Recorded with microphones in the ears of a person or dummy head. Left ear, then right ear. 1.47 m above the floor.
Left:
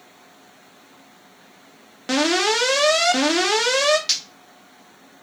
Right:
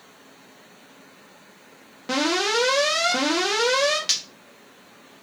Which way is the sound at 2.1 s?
20° left (ahead or behind).